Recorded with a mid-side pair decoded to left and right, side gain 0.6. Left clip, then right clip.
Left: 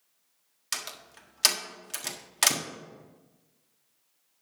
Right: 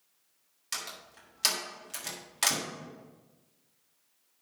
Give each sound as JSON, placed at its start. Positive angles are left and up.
{"t": 0.7, "sound": "a door slam", "azimuth_deg": 30, "distance_m": 1.4}